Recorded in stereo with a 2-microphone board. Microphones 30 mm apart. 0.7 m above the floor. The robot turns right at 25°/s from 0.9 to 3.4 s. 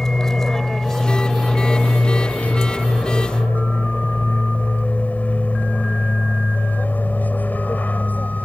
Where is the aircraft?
10° left (ahead or behind); by 8.4 s 70° left (ahead or behind).